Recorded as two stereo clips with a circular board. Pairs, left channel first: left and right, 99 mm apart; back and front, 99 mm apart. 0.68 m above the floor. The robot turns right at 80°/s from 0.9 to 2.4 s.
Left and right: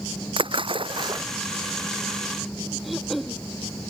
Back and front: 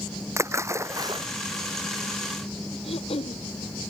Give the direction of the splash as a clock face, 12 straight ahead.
2 o'clock.